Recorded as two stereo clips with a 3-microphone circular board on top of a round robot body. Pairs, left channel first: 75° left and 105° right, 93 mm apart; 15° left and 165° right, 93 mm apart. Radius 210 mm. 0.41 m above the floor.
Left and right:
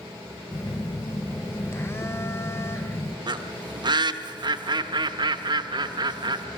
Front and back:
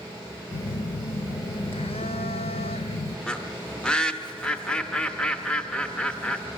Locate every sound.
0.5 s a phone buzzing: 10° left, 0.7 m
3.3 s a bird: 65° right, 0.9 m